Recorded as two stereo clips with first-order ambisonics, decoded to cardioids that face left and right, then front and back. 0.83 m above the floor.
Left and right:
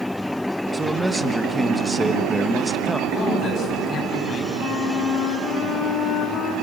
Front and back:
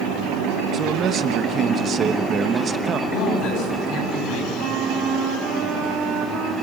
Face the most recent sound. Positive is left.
turn(degrees=165)